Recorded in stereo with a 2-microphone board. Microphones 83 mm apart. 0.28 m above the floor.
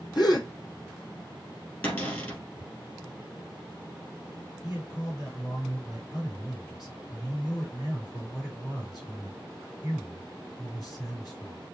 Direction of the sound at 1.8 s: 25° left (ahead or behind).